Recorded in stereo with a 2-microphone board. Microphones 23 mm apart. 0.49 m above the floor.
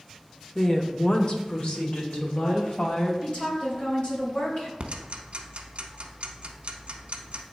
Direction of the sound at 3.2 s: 50° left (ahead or behind).